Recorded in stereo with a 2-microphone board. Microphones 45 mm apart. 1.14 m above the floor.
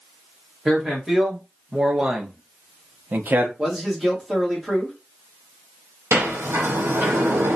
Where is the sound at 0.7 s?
Centre (ahead or behind), 1.4 m; by 3.5 s 45° right (ahead or behind), 0.6 m.